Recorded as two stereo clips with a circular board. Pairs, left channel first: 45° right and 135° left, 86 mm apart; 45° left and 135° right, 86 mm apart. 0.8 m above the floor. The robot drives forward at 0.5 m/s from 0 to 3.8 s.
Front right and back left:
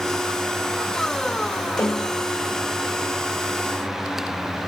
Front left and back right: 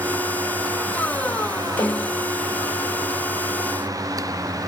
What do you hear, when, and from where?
1.8 s a snare drum: 10° left, 4.5 m